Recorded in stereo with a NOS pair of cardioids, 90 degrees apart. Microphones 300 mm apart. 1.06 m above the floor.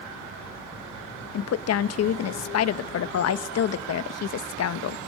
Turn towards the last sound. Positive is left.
turn(degrees=60)